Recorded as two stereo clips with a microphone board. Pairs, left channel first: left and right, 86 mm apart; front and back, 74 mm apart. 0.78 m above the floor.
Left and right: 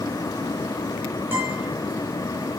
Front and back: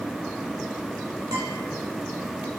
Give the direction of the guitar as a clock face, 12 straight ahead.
5 o'clock.